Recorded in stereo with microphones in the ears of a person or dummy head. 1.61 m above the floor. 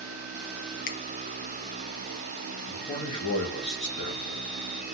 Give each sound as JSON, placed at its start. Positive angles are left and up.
{"t": 0.9, "sound": "a finger snap", "side_deg": 50, "distance_m": 0.9}
{"t": 2.7, "sound": "a man speaking", "side_deg": 35, "distance_m": 2.0}